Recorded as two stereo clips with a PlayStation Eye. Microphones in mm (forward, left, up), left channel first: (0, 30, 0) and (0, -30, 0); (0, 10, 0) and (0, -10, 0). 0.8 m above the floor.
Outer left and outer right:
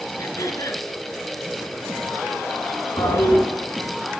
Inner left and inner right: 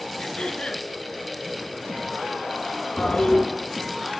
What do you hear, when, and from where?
0.2 s throat clearing: 65° left (ahead or behind), 2 m
3.0 s a toilet flushing: 80° left, 4.5 m